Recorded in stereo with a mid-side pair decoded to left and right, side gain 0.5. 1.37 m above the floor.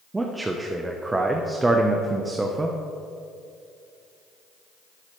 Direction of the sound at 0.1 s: 20° right.